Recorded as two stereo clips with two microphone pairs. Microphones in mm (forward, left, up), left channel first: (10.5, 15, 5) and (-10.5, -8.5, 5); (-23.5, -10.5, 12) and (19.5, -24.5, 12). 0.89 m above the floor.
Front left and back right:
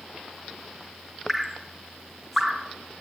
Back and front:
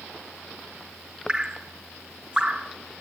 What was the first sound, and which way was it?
Dripping, 45° right.